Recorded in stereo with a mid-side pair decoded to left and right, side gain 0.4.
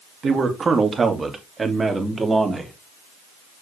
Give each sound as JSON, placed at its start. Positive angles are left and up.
{"t": 0.2, "sound": "a man speaking", "azimuth_deg": -50, "distance_m": 2.0}